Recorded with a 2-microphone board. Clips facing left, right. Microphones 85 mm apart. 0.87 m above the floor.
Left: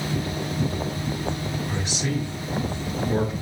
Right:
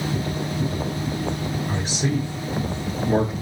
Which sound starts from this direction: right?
A man speaking, at 1.7 s.